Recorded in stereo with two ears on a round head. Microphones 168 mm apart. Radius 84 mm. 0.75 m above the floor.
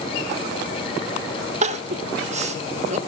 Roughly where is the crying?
Right.